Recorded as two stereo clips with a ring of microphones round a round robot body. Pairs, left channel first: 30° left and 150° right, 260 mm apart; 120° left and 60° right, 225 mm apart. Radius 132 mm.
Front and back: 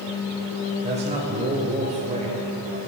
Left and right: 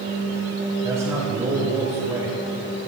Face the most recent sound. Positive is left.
turn(degrees=-120)